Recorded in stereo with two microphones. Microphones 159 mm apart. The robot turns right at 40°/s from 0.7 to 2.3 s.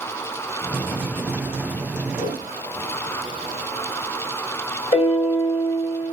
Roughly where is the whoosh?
Left.